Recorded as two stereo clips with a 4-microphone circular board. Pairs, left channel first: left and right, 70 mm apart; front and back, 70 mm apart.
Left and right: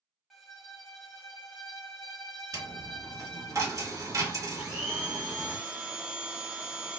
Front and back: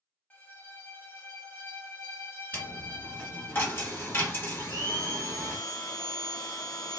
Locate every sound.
0.3 s a violin: 10° right, 1.3 m
2.5 s a dropped coin: 60° right, 1.6 m
4.6 s a blender: 20° right, 0.7 m